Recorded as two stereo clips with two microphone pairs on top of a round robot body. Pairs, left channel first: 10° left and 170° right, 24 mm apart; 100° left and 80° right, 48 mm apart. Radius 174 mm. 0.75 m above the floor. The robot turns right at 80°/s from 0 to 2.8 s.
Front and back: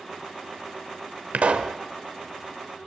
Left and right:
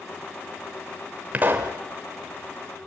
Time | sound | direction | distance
1.3 | a pop | 145° right | 0.8 m